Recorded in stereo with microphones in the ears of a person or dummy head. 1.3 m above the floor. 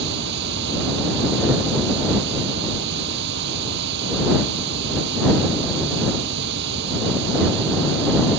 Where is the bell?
I don't hear a bell.